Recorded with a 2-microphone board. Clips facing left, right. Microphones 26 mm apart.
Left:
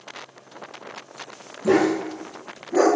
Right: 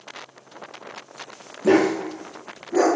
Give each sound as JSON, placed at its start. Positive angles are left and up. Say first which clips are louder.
{"t": 1.6, "sound": "a dog barking", "louder": "right 1 dB", "side_deg": -55, "distance_m": 0.7}